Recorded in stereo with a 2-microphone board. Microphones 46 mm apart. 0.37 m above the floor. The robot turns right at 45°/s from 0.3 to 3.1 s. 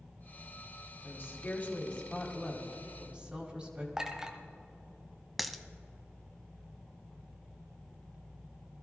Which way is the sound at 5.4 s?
Centre (ahead or behind).